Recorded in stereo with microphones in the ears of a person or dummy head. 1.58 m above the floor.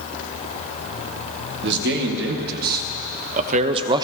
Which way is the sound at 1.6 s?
60° right (ahead or behind).